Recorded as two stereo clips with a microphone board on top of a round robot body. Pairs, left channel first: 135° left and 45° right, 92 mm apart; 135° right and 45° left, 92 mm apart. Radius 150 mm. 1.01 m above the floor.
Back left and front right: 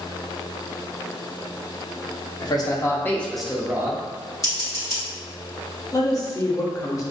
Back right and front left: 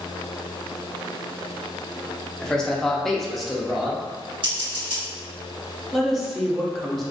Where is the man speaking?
145° left, 0.9 m; by 4.3 s 40° right, 0.8 m.